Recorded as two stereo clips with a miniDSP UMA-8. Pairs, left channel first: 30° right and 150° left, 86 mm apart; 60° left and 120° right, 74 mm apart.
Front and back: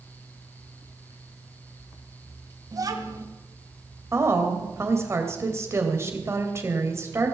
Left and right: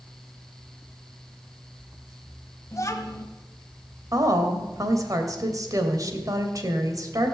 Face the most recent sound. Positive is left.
turn(degrees=-155)